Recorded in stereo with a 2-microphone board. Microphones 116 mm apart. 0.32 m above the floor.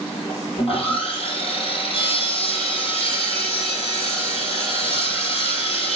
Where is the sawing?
55° left (ahead or behind), 3 m.